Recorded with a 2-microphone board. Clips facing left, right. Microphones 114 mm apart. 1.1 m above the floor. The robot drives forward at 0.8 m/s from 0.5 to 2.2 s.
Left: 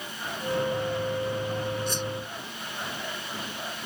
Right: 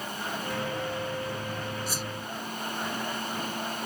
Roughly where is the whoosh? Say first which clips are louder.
Left 4 dB; centre.